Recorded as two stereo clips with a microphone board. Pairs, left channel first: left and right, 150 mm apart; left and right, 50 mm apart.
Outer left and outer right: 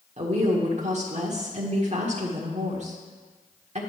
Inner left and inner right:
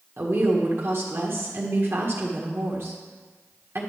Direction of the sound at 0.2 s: 50° right (ahead or behind).